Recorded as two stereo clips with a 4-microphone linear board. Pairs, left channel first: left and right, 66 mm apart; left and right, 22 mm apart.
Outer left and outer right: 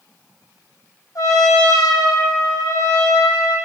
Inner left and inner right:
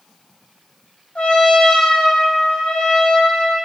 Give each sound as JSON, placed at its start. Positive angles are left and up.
{"t": 1.1, "sound": "a trumpet", "side_deg": 60, "distance_m": 4.0}